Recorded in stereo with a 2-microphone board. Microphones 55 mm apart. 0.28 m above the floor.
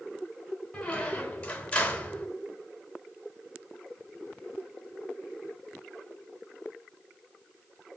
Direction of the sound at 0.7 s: 20° left (ahead or behind).